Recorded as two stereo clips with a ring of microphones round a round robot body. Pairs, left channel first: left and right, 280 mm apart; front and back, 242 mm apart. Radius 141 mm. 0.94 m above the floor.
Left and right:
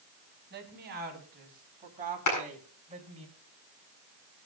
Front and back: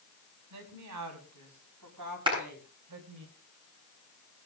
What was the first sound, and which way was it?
A woman speaking, 145° right.